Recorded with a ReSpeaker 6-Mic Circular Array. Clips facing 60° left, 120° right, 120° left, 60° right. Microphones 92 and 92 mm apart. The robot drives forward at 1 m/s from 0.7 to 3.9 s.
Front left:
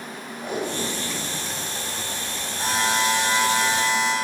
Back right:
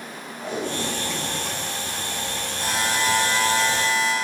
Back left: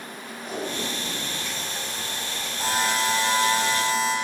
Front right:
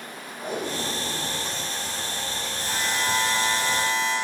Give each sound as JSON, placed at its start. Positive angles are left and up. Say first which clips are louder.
{"t": 0.4, "sound": "tape being pulled", "louder": "even, front right 1 dB", "azimuth_deg": -15, "distance_m": 5.5}
{"t": 2.6, "sound": "a buzzer", "louder": "front left 2 dB, back left 5 dB", "azimuth_deg": 120, "distance_m": 3.5}